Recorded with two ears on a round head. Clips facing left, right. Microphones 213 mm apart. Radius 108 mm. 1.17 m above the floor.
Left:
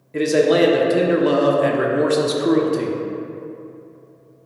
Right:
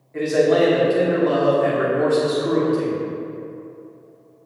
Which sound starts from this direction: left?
A man speaking, at 0.1 s.